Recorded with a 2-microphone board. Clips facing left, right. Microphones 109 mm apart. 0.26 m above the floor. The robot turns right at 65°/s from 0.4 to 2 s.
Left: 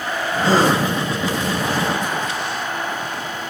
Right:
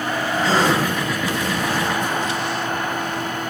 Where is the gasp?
60° left (ahead or behind), 4.5 m; by 0.8 s 35° left (ahead or behind), 4.5 m.